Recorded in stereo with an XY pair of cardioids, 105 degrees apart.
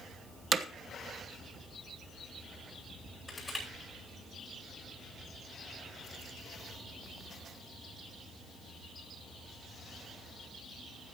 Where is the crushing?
15° left, 10 m.